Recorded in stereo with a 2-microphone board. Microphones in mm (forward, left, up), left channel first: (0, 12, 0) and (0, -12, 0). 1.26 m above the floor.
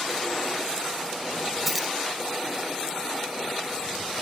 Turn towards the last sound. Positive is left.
turn(degrees=0)  # may be behind; listen again after turning